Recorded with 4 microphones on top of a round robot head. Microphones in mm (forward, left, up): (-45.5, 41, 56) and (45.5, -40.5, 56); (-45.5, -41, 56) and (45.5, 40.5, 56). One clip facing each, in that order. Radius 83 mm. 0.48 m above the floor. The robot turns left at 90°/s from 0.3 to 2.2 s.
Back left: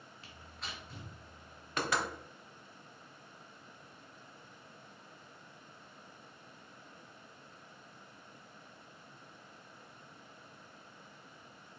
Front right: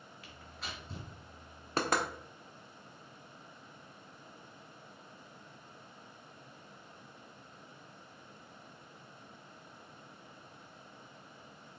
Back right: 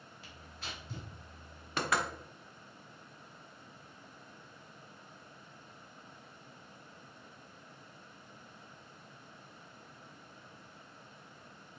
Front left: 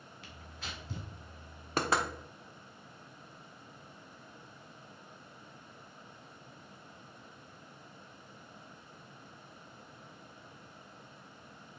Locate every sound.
0.2 s tearing paper: 75° left, 1.8 m; by 1.1 s 5° left, 1.8 m
1.8 s knocking: 5° left, 1.2 m; by 2.0 s 20° right, 1.2 m